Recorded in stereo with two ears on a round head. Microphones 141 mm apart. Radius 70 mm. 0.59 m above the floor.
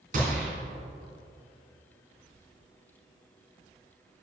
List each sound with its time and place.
0.1 s a gunshot: 55° right (ahead or behind), 2.5 m